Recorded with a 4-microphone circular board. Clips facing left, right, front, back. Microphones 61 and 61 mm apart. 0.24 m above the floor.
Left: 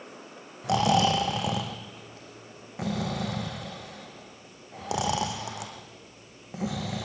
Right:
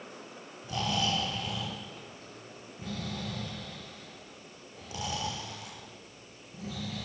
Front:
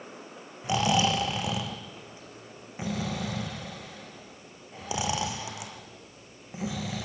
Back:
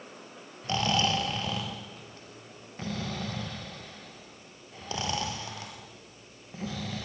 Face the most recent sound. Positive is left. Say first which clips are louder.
# left 9 dB, front 3 dB
turn(degrees=80)